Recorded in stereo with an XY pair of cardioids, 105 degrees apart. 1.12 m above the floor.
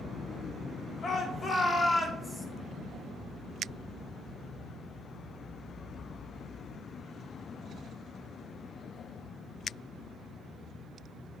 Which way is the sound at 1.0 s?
45° left.